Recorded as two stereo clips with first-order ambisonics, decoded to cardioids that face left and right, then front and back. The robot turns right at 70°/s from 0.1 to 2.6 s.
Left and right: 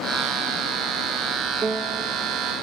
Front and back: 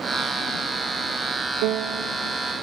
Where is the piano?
165° right, 0.6 m; by 2.0 s 135° right, 0.6 m.